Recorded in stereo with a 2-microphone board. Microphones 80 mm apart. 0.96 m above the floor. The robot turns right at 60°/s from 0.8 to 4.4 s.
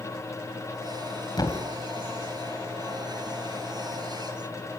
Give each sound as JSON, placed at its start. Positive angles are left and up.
{"t": 1.4, "sound": "a thud", "side_deg": 60, "distance_m": 2.5}